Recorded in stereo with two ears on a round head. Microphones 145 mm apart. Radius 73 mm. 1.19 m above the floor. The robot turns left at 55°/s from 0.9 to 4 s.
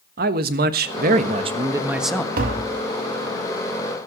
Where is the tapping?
60° right (ahead or behind), 2.5 m; by 2.8 s 40° right (ahead or behind), 2.5 m.